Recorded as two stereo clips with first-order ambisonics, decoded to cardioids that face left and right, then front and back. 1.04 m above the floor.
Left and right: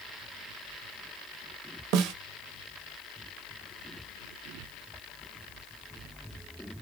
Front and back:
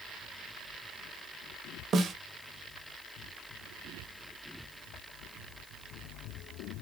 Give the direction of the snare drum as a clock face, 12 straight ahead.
4 o'clock.